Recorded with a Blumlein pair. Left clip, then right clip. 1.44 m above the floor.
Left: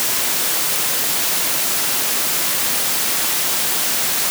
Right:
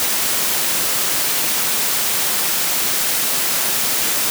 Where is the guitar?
No guitar in this recording.